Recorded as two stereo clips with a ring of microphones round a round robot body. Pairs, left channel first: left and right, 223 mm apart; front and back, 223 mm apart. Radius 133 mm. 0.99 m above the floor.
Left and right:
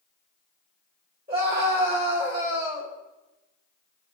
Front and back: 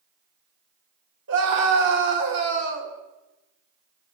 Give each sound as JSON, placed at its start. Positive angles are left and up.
{"t": 1.3, "sound": "a scream", "azimuth_deg": -145, "distance_m": 2.5}